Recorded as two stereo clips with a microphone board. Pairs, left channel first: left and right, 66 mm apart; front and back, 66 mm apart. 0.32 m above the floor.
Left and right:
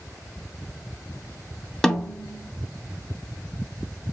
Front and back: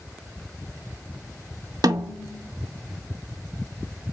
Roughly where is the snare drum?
Behind.